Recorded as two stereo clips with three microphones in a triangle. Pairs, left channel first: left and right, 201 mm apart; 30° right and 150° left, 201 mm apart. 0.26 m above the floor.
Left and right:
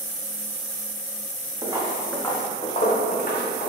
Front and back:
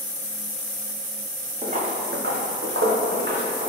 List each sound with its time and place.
1.6 s footsteps: 155° right, 1.0 m; by 3.7 s 120° left, 1.6 m